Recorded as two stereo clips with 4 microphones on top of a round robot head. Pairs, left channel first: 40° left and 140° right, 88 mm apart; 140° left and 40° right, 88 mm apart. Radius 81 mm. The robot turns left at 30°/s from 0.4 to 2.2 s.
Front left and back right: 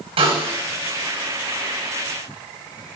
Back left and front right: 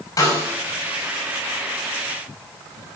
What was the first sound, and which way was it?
A snare drum, 165° right.